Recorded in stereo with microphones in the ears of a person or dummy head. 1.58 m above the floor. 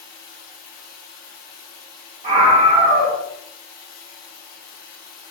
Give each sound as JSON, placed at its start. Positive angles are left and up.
{"t": 0.0, "sound": "running water", "side_deg": 50, "distance_m": 1.2}
{"t": 2.2, "sound": "a scream", "side_deg": -30, "distance_m": 0.9}